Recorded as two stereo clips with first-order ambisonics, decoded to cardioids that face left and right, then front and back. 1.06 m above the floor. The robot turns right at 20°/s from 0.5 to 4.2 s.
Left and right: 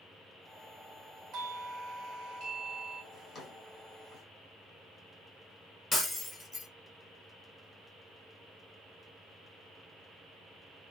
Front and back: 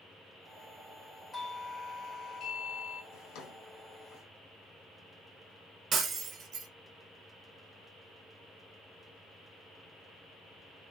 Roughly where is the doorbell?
Right.